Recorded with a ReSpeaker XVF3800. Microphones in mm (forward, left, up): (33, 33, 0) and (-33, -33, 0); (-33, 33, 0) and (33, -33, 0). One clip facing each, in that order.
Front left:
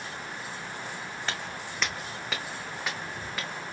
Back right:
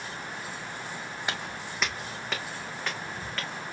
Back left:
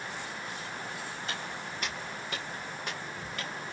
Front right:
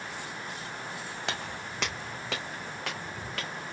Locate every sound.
1.3 s footsteps: 60° right, 0.8 m; by 3.5 s 35° right, 1.9 m